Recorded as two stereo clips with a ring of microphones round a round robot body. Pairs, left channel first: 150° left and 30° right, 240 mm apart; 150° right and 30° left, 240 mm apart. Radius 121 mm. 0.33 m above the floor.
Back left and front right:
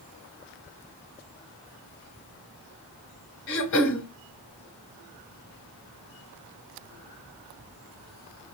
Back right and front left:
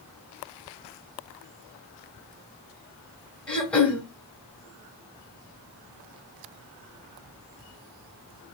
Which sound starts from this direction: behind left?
Throat clearing, at 3.5 s.